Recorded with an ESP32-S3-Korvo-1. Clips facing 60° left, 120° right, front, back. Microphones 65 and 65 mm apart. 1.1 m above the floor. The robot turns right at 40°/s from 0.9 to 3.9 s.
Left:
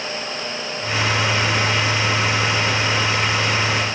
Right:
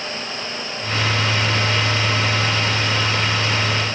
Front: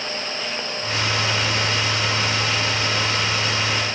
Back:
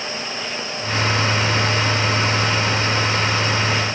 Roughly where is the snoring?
I don't hear snoring.